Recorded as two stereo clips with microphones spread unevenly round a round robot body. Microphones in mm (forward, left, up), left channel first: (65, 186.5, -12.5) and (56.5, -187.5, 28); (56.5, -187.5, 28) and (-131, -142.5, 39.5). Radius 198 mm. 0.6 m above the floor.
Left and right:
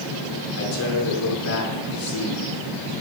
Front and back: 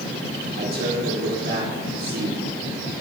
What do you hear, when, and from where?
0.6 s a man speaking: 130° left, 2 m